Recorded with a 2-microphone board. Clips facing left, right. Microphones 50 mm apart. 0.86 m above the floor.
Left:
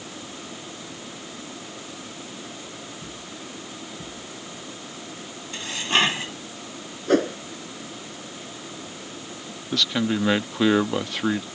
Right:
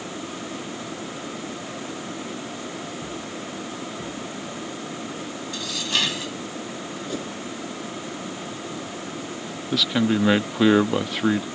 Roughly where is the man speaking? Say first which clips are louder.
Right 2 dB; centre.